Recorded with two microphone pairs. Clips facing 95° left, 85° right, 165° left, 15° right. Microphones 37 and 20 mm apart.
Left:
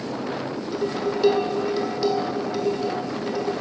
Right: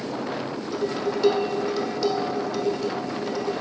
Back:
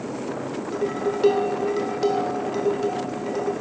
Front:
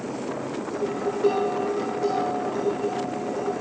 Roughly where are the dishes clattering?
Behind.